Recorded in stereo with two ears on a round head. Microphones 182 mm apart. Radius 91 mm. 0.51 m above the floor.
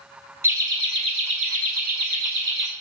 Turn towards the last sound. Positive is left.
turn(degrees=-55)  # may be behind; listen again after turning